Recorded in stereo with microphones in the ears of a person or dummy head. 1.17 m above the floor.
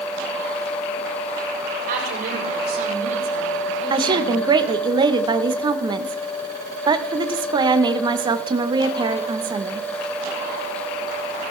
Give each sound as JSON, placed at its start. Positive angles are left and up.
{"t": 1.9, "sound": "a woman speaking", "side_deg": -50, "distance_m": 4.5}
{"t": 3.9, "sound": "a woman speaking", "side_deg": -25, "distance_m": 0.8}